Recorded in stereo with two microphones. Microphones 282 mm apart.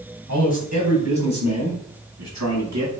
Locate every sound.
0.3 s a man speaking: 90° right, 4 m; by 2.9 s 80° right, 5.5 m